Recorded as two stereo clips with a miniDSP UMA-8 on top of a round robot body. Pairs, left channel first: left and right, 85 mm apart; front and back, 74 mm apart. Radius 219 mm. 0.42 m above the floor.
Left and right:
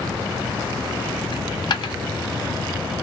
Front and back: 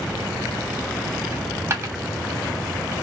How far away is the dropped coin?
About 1.0 m.